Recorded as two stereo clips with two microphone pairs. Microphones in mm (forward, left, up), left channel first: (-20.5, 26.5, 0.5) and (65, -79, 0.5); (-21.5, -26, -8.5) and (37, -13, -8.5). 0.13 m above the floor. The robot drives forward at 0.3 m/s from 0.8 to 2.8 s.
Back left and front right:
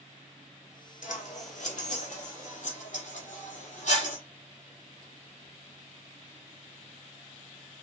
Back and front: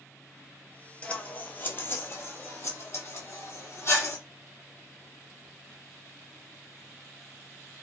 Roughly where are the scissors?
Behind left.